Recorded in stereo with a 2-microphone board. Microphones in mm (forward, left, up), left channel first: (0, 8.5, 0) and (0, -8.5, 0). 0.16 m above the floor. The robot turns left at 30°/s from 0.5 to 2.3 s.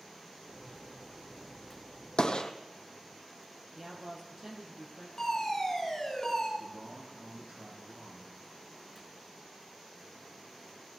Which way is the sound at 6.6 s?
50° right (ahead or behind).